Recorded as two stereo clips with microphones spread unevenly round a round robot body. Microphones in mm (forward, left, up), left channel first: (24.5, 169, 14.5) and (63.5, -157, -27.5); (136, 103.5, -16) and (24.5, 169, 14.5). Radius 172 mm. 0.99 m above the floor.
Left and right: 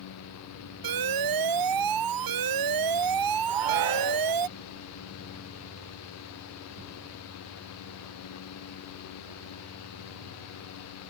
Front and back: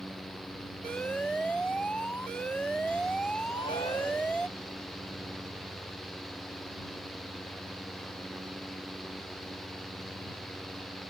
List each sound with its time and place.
0.8 s an alarm: 120° right
3.5 s a shout: 105° right